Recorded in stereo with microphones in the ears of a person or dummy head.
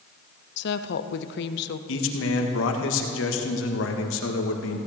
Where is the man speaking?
70° left (ahead or behind), 1.7 m.